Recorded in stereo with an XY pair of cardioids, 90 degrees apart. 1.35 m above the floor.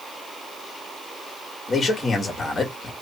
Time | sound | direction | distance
1.7 | a man speaking | 35° left | 1.7 m